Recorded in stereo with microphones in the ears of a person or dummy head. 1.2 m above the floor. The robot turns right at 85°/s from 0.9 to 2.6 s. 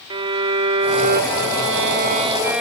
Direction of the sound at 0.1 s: 150° right.